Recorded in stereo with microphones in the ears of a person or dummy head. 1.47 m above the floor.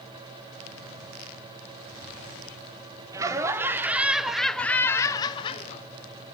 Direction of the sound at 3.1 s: 20° right (ahead or behind).